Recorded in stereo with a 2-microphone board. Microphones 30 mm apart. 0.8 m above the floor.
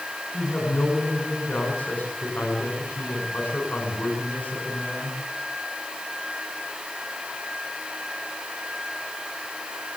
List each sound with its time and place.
0.3 s a woman speaking: 70° left (ahead or behind), 9 m